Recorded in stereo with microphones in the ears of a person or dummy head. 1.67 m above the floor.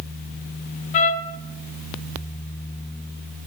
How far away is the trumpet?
About 1.2 m.